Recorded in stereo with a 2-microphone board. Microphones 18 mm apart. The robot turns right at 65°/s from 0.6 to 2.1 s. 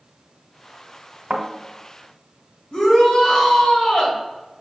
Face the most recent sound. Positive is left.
turn(degrees=60)  # may be behind; listen again after turning